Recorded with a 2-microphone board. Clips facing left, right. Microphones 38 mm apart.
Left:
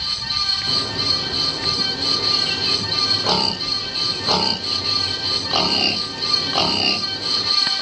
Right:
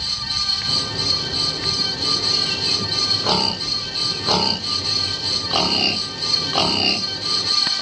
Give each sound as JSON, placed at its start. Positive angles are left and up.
{"t": 0.7, "sound": "a bird", "side_deg": 35, "distance_m": 3.0}